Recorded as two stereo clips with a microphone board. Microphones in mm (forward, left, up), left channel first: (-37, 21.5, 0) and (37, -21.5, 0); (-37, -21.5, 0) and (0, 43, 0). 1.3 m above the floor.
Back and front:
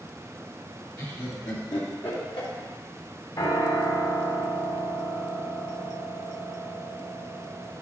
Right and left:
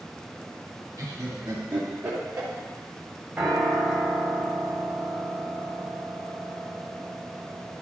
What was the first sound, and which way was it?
Laughter, 110° left.